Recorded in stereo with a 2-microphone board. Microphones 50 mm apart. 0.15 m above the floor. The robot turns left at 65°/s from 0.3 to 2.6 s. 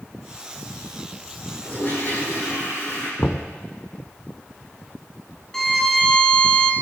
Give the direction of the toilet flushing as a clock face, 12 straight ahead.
7 o'clock.